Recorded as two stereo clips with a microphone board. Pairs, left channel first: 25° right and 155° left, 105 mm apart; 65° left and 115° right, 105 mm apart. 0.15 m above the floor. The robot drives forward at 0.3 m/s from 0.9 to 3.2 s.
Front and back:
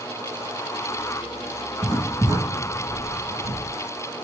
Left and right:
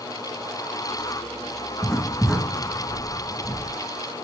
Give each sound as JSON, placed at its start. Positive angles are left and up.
{"t": 1.8, "sound": "writing", "azimuth_deg": 160, "distance_m": 1.6}